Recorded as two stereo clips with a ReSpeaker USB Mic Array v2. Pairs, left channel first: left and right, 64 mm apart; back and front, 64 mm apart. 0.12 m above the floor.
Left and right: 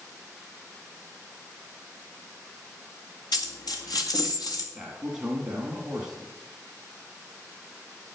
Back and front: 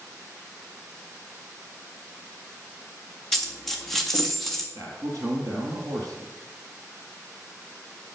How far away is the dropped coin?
About 2 m.